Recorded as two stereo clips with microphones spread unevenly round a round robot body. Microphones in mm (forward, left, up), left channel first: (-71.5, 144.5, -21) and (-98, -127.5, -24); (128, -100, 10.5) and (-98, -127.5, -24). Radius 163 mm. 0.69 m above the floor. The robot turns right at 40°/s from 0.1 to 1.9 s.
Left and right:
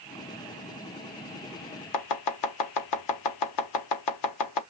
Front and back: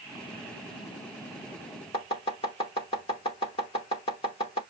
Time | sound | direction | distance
1.9 | chopping | 85° left | 0.8 m